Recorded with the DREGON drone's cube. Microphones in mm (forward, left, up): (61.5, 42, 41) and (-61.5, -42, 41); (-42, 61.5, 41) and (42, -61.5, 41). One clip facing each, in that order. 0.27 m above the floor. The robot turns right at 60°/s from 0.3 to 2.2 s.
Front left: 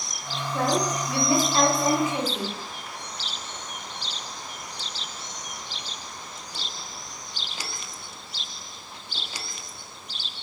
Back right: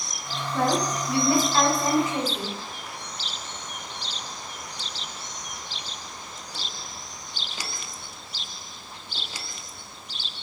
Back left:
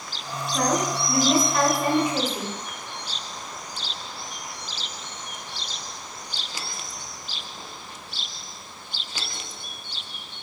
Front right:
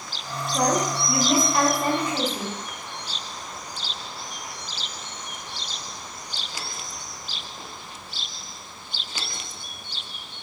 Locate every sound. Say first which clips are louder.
0.5 s a woman speaking: even, front right 1 dB; 25° right, 0.9 m; by 2.5 s 75° left, 0.9 m